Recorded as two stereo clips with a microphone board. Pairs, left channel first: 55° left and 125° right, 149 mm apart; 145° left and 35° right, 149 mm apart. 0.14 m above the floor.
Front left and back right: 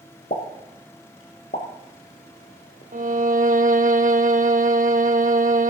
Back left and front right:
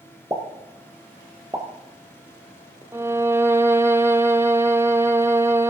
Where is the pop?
35° left, 2 m.